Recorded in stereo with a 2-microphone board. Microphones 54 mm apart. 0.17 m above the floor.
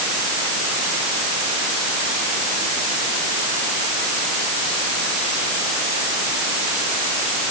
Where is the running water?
I don't hear running water.